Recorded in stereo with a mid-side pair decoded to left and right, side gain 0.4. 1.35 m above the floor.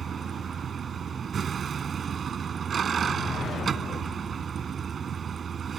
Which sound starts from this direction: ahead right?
A vehicle, at 0.0 s.